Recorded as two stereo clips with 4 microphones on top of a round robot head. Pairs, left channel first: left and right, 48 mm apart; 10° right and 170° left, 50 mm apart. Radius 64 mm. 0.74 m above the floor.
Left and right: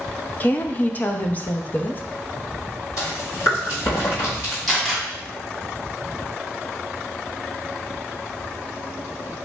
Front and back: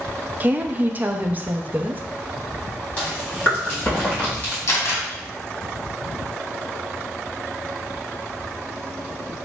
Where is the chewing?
55° left, 2.0 m.